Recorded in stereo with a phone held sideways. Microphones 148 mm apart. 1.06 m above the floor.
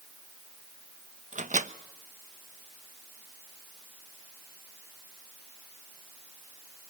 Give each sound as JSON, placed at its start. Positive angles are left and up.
{"t": 1.3, "sound": "a microwave", "side_deg": -55, "distance_m": 0.9}